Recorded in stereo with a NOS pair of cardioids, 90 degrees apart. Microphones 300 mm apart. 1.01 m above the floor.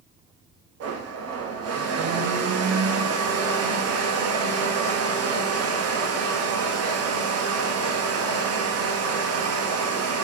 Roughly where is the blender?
Ahead right.